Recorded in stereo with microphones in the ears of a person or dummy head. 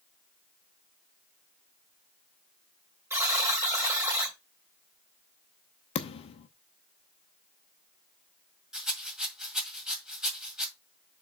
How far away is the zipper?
No zipper in this recording.